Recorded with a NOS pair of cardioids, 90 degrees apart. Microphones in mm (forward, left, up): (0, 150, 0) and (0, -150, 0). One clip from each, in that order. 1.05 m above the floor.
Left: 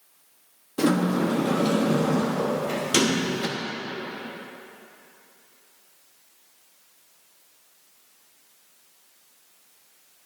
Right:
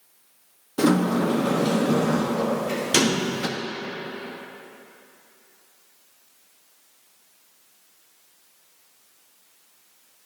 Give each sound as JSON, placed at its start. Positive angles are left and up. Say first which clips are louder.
{"t": 0.8, "sound": "a sliding door", "louder": "right 2 dB", "azimuth_deg": -10, "distance_m": 1.1}